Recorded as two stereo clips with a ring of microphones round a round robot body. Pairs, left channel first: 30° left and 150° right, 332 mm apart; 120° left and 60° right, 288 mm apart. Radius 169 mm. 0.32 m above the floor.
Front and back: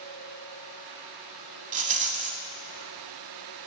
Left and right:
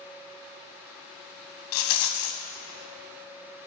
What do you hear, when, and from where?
1.7 s a rattle: 140° left, 0.8 m